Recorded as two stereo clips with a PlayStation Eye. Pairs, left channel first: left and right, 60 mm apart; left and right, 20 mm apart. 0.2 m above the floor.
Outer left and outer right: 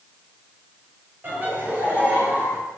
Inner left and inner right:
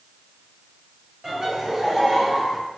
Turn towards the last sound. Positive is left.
turn(degrees=-30)  # may be behind; listen again after turning